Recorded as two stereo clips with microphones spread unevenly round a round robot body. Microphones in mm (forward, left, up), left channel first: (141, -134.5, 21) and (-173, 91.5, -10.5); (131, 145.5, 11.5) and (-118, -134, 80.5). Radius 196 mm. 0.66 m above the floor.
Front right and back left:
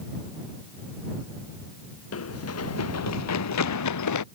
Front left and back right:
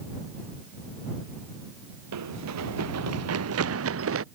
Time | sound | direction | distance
2.1 | running footsteps | 90° right | ?